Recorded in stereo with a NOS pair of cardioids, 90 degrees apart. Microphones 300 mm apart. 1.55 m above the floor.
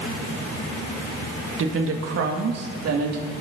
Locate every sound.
1.6 s a woman speaking: 45° right, 2.5 m; by 3.3 s 65° right, 4 m